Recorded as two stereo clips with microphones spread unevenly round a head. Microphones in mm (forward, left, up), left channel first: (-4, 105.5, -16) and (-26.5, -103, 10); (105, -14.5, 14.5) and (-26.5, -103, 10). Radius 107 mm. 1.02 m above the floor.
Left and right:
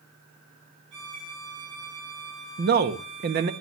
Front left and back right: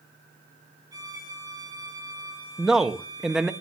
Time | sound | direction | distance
0.9 | a violin | 80° right | 7.5 m
2.6 | a man speaking | 60° right | 0.8 m